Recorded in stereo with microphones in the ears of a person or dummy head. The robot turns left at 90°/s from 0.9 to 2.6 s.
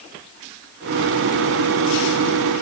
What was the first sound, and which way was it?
Only background noise.